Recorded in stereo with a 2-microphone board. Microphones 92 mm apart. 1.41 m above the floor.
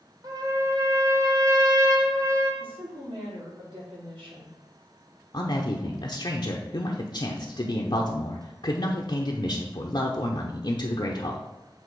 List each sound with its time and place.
0.2 s a trumpet: 45° right (ahead or behind), 1.4 m
2.6 s a woman speaking: 75° right (ahead or behind), 3.5 m
5.3 s a man speaking: 55° left (ahead or behind), 0.8 m